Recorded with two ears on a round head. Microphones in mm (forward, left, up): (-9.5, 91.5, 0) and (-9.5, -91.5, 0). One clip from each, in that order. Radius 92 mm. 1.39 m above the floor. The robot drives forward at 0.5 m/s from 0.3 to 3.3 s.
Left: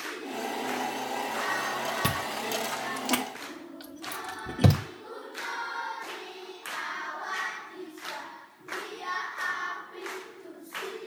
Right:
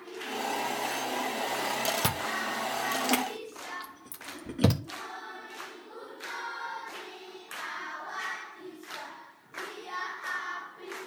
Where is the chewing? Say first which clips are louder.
Even; 25° right (ahead or behind), 1.0 m; by 4.8 s 15° right (ahead or behind), 1.5 m.